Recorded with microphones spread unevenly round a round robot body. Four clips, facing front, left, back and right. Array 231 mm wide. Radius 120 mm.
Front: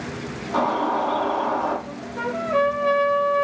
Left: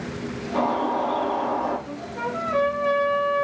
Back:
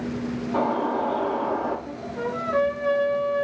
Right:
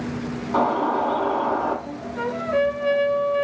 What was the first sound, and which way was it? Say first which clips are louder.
A bird: right 2 dB, front 3 dB; 65° right.